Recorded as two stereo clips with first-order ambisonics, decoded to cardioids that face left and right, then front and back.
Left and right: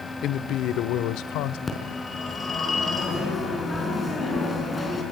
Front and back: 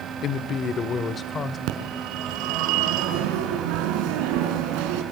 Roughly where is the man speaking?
Ahead left.